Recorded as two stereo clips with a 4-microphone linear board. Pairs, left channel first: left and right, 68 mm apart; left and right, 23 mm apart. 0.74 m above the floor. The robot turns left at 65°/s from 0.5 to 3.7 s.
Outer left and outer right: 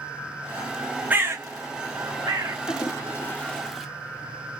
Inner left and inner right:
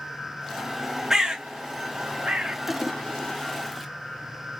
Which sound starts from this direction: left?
A toilet flushing, at 2.7 s.